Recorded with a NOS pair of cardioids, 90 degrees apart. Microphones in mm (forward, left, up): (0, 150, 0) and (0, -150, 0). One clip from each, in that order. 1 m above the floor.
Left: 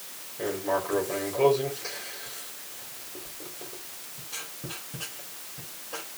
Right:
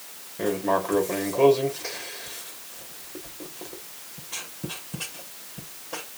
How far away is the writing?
About 5 m.